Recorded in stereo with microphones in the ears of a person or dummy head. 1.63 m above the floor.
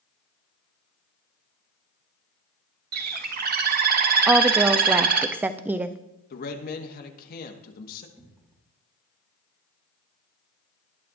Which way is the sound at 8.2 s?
20° right (ahead or behind).